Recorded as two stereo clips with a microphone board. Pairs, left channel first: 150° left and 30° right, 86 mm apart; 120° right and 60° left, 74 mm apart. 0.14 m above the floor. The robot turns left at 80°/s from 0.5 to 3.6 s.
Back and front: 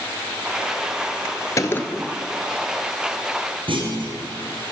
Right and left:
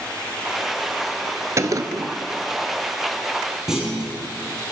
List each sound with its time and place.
1.6 s a gunshot: 105° left, 0.7 m; by 2.1 s 60° left, 0.7 m
3.7 s a clunk: 20° right, 2.5 m